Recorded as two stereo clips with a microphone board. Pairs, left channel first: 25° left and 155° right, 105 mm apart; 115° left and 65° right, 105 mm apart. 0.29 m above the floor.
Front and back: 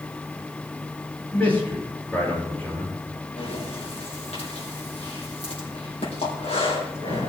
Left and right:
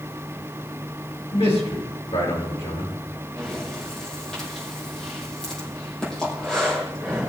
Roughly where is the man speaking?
Left.